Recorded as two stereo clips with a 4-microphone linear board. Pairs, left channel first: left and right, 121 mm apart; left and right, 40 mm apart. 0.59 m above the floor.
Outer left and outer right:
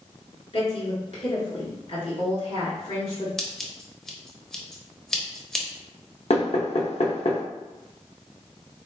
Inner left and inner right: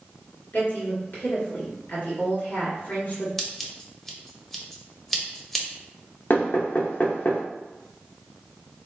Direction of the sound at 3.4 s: 5° left (ahead or behind).